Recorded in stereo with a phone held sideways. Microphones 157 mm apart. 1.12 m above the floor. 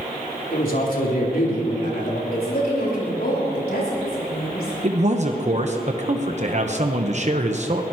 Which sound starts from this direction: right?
A man speaking, at 4.8 s.